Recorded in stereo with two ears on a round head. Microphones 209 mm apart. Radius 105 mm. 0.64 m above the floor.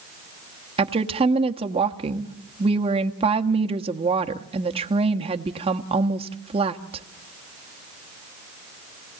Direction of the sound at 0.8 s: 25° right (ahead or behind).